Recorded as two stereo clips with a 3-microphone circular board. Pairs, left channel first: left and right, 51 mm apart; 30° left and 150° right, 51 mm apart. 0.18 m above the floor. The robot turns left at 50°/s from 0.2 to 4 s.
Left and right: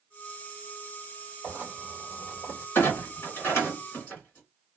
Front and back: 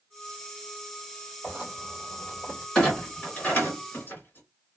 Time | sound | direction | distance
1.4 | writing | 155° left | 1.9 m
2.8 | a clunk | 100° left | 2 m